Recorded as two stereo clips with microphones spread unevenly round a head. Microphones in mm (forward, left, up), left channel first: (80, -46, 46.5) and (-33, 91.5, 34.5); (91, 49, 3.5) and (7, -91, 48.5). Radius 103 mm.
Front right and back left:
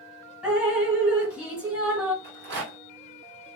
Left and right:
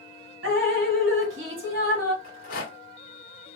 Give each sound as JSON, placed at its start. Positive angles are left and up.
{"t": 0.4, "sound": "dripping", "azimuth_deg": -145, "distance_m": 1.4}
{"t": 2.2, "sound": "a rattle", "azimuth_deg": 110, "distance_m": 1.4}